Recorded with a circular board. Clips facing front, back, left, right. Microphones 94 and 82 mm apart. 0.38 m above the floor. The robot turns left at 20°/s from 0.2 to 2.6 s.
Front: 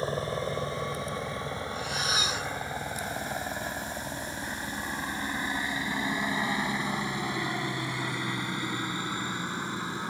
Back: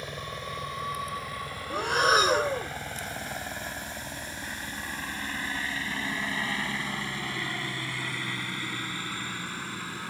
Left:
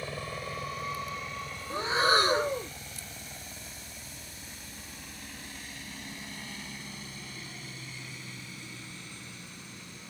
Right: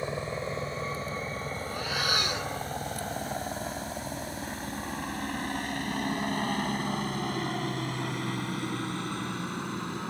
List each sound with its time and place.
0.0 s a helicopter: 35° right; by 10.1 s 70° right
1.7 s breathing: 155° left; by 2.7 s 135° left